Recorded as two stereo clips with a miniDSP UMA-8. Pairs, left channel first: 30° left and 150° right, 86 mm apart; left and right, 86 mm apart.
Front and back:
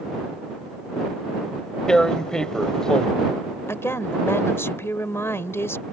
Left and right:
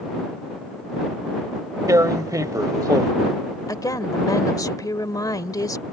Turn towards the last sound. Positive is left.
turn(degrees=80)